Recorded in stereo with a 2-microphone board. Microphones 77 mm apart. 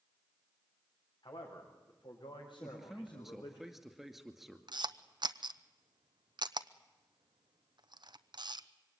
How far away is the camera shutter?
About 0.8 m.